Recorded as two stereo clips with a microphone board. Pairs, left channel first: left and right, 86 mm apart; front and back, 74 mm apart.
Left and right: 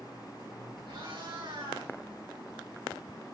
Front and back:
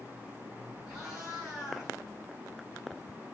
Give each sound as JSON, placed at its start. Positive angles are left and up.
{"t": 0.9, "sound": "a cat meowing", "azimuth_deg": -95, "distance_m": 5.5}